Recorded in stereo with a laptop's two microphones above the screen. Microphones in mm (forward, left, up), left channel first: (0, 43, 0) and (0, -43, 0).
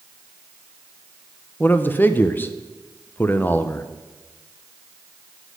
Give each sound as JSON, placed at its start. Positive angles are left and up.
{"t": 1.6, "sound": "a man speaking", "side_deg": 20, "distance_m": 0.7}